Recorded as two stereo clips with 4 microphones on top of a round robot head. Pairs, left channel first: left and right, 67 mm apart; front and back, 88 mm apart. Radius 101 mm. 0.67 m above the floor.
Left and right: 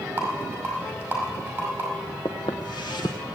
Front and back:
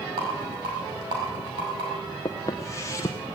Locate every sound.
0.2 s a rattle: 155° right, 5 m
2.2 s footsteps: 45° left, 0.8 m